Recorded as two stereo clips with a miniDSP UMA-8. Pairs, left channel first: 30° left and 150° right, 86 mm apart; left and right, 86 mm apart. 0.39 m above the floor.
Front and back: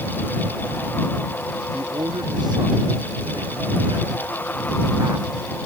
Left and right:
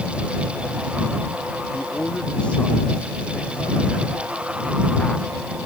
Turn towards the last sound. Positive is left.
turn(degrees=160)